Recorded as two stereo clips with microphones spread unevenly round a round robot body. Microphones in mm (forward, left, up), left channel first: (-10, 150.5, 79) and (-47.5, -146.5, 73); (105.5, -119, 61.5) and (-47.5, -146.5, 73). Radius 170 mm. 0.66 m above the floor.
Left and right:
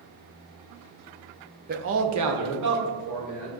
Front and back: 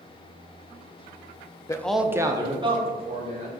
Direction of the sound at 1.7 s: 50° right.